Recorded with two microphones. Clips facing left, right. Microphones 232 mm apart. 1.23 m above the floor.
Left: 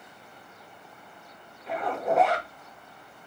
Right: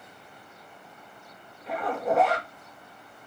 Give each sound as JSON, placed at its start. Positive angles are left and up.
{"t": 1.7, "sound": "a zipper", "side_deg": 0, "distance_m": 2.0}